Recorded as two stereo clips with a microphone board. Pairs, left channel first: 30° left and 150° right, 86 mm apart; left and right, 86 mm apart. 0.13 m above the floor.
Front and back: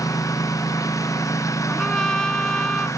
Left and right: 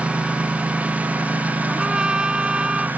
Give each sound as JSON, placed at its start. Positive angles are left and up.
{"t": 0.0, "sound": "a lawn mower", "azimuth_deg": -15}
{"t": 1.7, "sound": "a trumpet", "azimuth_deg": -30}